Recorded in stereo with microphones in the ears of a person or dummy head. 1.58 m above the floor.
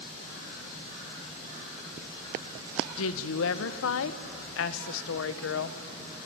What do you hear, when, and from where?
3.0 s a woman speaking: 75° left (ahead or behind), 1.2 m